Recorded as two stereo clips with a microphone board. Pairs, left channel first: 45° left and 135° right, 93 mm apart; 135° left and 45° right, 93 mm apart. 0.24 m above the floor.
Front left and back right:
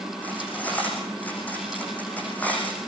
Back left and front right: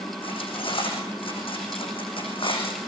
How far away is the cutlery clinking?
About 8 m.